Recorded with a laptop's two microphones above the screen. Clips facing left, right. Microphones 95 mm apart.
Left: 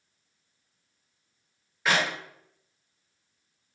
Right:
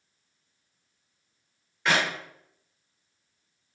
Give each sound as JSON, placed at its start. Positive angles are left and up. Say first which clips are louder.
{"t": 1.9, "sound": "a clap", "louder": "even", "side_deg": 5, "distance_m": 0.7}